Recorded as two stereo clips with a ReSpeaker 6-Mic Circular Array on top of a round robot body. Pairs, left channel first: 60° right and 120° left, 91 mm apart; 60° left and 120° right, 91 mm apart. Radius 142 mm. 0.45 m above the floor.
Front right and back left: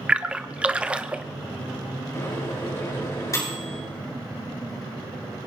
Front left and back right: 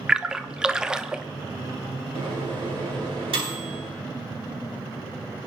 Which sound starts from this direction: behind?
A splash, at 0.1 s.